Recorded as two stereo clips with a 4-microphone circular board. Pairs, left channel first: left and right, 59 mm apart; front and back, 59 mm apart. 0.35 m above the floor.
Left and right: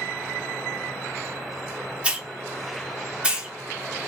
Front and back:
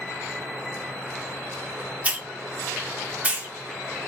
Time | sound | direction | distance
2.0 | a hiss | 140° right | 0.7 m